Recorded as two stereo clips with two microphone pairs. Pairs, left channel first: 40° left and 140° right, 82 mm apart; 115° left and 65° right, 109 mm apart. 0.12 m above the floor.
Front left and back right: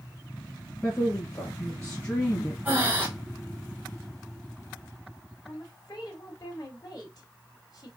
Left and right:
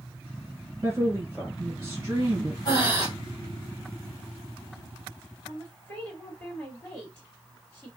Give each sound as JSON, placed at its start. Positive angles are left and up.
{"t": 0.8, "sound": "a woman speaking", "azimuth_deg": -15, "distance_m": 1.6}
{"t": 2.6, "sound": "breathing", "azimuth_deg": 150, "distance_m": 2.5}
{"t": 5.4, "sound": "a woman speaking", "azimuth_deg": 35, "distance_m": 2.5}